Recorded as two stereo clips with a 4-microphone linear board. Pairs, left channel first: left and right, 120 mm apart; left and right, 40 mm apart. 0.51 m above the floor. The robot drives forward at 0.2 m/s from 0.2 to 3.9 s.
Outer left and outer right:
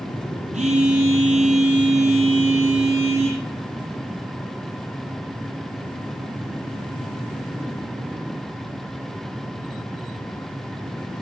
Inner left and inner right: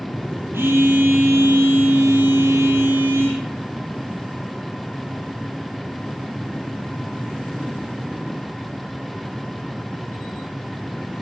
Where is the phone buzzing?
70° right (ahead or behind), 9 m; by 3.4 s 65° right (ahead or behind), 9.5 m.